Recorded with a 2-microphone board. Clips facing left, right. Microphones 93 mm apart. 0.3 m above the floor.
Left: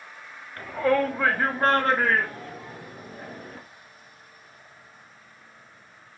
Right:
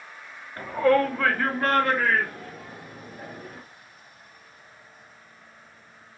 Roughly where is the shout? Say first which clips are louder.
Right 2 dB; centre.